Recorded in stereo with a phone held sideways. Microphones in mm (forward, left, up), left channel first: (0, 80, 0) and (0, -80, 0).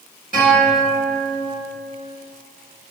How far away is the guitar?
About 1.5 m.